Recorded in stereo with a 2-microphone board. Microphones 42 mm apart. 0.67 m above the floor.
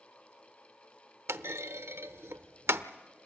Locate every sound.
1.3 s a clunk: 75° right (ahead or behind), 0.9 m